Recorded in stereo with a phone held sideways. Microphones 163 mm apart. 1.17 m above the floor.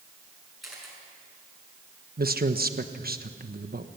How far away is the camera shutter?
About 6.5 m.